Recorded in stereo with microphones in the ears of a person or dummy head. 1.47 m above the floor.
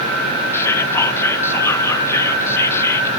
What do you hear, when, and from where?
0.5 s whispering: 20° left (ahead or behind), 0.5 m